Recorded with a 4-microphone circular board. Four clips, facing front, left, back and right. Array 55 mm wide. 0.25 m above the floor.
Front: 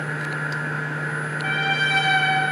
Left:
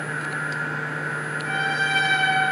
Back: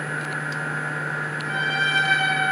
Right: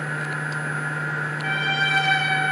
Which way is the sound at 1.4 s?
30° right.